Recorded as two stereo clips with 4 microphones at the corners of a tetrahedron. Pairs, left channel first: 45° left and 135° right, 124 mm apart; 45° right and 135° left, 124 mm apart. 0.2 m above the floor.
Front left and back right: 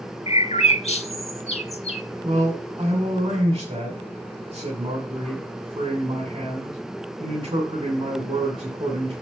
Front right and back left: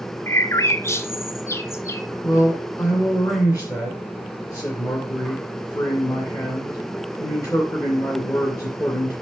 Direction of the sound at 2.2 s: 105° right.